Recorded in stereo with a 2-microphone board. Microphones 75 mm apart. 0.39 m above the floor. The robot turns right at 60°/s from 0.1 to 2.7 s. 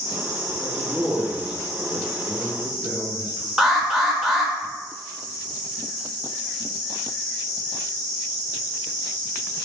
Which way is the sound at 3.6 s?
10° right (ahead or behind).